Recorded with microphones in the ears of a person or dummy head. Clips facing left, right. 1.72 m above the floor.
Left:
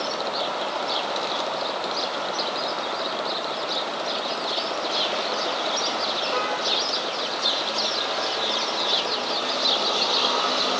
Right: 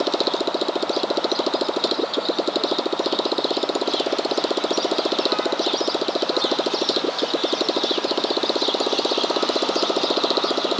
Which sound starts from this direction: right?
A motorcycle, at 0.0 s.